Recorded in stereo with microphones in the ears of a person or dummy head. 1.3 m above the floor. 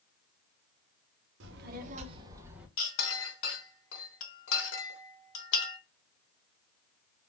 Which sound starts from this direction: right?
A child speaking, at 1.4 s.